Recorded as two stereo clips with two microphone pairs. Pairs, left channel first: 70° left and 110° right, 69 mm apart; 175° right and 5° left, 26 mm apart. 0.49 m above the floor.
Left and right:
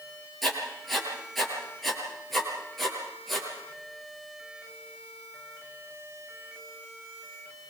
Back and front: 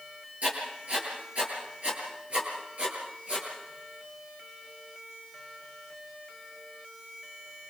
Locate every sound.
0.4 s writing: 20° right, 8.5 m